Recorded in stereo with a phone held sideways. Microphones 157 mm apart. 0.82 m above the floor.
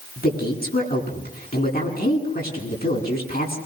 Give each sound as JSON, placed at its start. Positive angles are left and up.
{"t": 0.2, "sound": "a man speaking", "side_deg": 75, "distance_m": 9.5}